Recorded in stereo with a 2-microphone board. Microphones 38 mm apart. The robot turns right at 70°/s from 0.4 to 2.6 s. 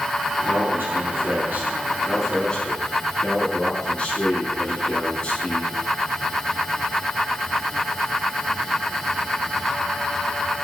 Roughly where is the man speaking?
Behind right.